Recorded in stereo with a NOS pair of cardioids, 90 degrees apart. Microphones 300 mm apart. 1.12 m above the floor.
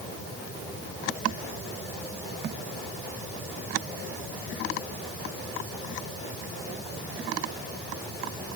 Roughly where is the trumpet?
No trumpet in this recording.